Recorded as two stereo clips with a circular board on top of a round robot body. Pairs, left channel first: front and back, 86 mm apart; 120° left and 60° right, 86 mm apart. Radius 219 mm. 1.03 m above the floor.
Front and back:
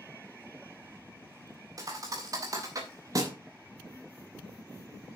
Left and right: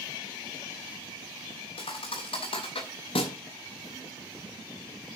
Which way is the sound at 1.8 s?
130° left.